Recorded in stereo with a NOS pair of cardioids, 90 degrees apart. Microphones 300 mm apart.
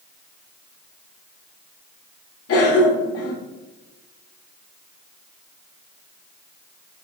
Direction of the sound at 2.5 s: 55° left.